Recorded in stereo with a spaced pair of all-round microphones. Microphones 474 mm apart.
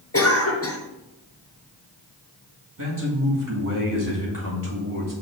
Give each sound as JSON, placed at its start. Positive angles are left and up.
{"t": 0.1, "sound": "a cough", "side_deg": 30, "distance_m": 1.1}
{"t": 2.8, "sound": "a man speaking", "side_deg": -40, "distance_m": 2.0}